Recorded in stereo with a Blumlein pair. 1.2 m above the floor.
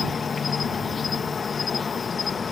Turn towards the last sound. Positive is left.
turn(degrees=20)